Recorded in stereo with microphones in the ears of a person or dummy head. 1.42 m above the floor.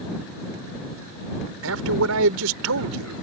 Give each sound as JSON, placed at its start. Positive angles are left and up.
{"t": 1.6, "sound": "a man speaking", "side_deg": -80}